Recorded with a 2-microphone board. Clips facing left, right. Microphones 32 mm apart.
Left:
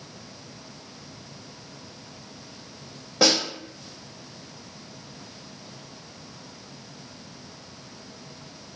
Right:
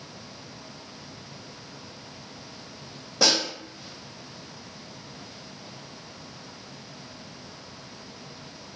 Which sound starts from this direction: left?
A snare drum, at 3.2 s.